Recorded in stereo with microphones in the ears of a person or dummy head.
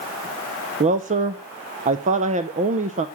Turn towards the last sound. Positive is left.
turn(degrees=-30)  # may be behind; listen again after turning